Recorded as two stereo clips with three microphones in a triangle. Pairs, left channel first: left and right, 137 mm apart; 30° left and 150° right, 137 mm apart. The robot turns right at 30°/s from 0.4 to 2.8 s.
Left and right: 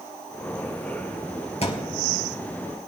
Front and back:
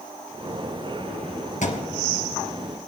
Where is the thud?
50° left, 2.5 m; by 2.0 s 60° left, 2.5 m.